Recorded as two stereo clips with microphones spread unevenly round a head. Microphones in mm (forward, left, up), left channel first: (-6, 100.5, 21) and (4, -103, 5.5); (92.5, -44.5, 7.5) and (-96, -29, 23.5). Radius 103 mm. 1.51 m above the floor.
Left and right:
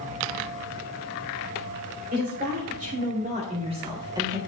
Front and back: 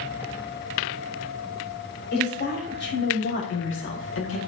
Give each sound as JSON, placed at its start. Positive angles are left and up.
{"t": 2.1, "sound": "a woman speaking", "azimuth_deg": -40, "distance_m": 3.5}